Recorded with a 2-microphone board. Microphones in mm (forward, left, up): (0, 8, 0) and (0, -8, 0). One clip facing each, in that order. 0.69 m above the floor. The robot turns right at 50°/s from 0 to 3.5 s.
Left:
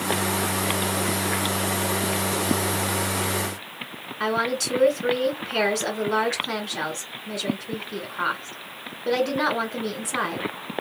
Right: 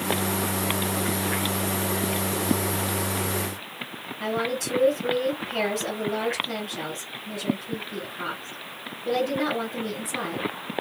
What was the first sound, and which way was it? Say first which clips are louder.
A woman speaking: left 3 dB; 55° left (ahead or behind).